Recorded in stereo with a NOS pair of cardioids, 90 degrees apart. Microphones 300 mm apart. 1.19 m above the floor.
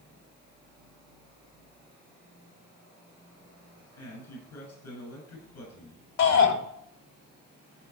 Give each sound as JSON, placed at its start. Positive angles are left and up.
{"t": 4.0, "sound": "a man speaking", "azimuth_deg": 70, "distance_m": 7.5}
{"t": 6.2, "sound": "a shout", "azimuth_deg": 65, "distance_m": 3.0}